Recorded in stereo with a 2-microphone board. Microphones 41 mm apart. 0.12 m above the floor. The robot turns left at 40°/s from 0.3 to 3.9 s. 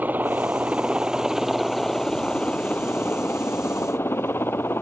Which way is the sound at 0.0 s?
45° right (ahead or behind).